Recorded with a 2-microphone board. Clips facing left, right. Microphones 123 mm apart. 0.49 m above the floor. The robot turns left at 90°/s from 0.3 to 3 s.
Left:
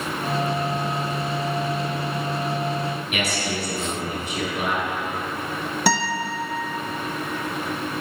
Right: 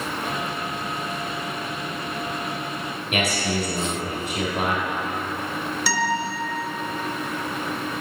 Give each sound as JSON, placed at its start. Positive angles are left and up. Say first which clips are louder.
{"t": 3.1, "sound": "a man speaking", "louder": "right 2 dB", "side_deg": -65, "distance_m": 2.5}
{"t": 5.9, "sound": "a guitar", "louder": "left 2 dB", "side_deg": 55, "distance_m": 0.7}